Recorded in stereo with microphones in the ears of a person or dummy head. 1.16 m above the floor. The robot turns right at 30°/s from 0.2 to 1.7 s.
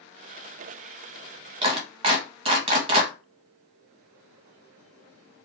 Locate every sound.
1.6 s a clap: 30° right (ahead or behind), 0.7 m; by 3.1 s 35° right (ahead or behind), 0.7 m